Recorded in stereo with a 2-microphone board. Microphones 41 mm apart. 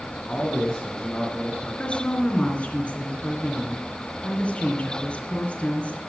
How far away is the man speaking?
About 2 m.